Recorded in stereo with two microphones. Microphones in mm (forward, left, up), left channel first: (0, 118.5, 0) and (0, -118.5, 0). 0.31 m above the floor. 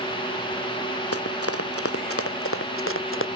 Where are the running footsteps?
80° left; by 3.3 s 60° left (ahead or behind).